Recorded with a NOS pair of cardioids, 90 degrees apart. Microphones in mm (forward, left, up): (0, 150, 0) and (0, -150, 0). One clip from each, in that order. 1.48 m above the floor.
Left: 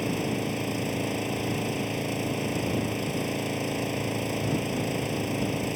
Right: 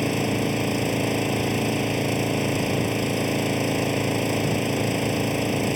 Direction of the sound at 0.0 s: 40° right.